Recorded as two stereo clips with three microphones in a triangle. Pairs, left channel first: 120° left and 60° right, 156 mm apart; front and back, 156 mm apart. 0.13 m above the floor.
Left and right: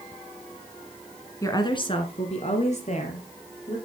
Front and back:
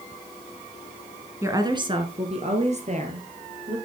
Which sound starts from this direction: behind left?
A woman speaking, at 1.4 s.